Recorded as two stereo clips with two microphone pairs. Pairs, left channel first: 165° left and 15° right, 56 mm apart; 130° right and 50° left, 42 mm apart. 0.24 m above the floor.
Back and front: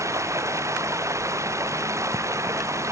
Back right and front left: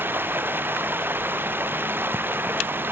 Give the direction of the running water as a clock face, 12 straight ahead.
12 o'clock.